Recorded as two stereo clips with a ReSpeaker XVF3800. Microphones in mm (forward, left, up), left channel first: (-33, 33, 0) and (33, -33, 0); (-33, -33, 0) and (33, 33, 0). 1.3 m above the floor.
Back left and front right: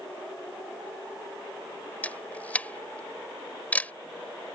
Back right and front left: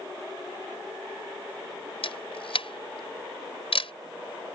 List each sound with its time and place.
2.0 s a camera shutter: 150° right